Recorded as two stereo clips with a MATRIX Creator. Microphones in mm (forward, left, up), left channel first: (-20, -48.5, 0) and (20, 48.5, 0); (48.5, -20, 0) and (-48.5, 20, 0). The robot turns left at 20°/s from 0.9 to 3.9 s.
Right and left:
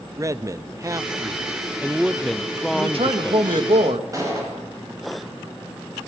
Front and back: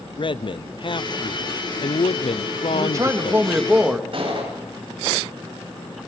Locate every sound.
0.2 s a man speaking: 10° left, 0.7 m; by 3.7 s 45° right, 0.7 m
2.7 s a man speaking: 100° left, 2 m; by 4.0 s 80° left, 2 m
4.1 s a gunshot: 125° left, 9.5 m